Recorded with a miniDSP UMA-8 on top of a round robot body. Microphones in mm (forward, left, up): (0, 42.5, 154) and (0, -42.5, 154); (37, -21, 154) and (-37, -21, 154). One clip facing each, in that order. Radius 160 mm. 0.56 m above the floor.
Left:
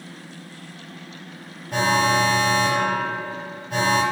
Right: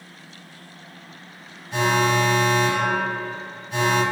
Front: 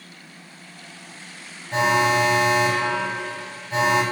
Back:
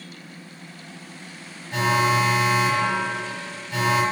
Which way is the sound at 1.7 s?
55° left.